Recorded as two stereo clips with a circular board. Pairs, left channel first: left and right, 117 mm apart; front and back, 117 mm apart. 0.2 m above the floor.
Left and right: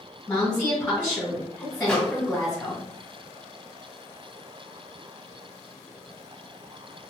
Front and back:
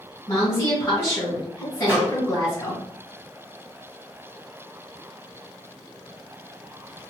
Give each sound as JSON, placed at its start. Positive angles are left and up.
{"t": 0.3, "sound": "a woman speaking", "azimuth_deg": 15, "distance_m": 1.5}
{"t": 1.8, "sound": "a microwave", "azimuth_deg": 160, "distance_m": 0.9}